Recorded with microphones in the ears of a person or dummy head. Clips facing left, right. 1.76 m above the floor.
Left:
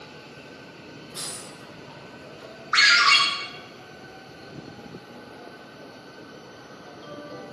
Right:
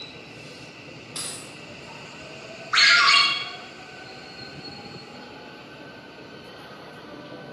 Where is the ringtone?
25° left (ahead or behind), 0.7 m.